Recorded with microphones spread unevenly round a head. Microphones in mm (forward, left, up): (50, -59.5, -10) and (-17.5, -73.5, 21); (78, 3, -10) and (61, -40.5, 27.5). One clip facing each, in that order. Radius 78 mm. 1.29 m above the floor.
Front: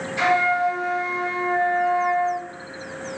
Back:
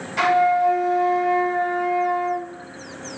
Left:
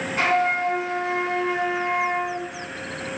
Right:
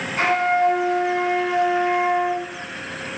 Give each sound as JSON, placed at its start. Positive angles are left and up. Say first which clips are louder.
{"t": 0.2, "sound": "a flute", "louder": "back 3 dB, right 3 dB", "azimuth_deg": 175, "distance_m": 1.9}